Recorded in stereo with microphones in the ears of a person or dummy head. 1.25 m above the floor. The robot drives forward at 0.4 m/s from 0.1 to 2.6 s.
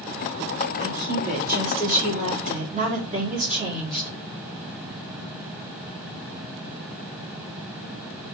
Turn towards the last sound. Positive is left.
turn(degrees=-40)  # may be behind; listen again after turning